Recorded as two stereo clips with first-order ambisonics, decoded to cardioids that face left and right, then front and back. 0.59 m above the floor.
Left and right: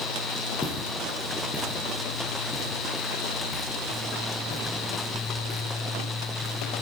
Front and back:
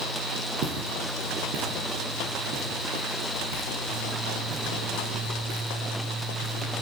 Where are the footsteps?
175° left, 6 m; by 6.7 s 140° left, 6.5 m.